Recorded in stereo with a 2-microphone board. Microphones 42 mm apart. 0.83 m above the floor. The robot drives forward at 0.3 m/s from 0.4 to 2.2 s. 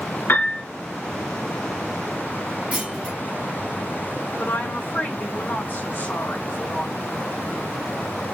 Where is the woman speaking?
60° left (ahead or behind), 3 m.